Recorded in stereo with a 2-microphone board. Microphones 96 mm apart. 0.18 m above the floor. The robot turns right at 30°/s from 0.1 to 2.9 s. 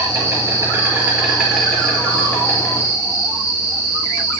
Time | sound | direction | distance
0.0 | an insect | 45° right | 4 m